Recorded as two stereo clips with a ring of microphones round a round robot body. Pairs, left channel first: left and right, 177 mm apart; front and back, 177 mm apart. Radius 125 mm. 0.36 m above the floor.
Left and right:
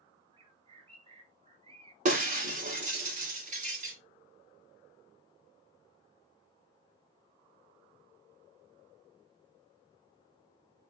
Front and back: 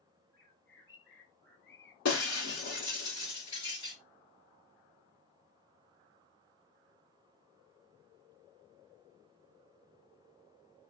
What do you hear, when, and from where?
0.3 s a bird: 35° right, 3.5 m
2.0 s breaking glass: 40° right, 2 m